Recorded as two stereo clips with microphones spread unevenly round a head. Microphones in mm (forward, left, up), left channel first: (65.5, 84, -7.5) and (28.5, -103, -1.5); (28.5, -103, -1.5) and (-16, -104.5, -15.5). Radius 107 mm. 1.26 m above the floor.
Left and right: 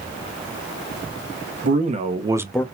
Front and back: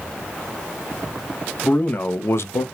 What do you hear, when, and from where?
1.6 s a man speaking: 55° right, 1.5 m; by 2.6 s 5° left, 0.6 m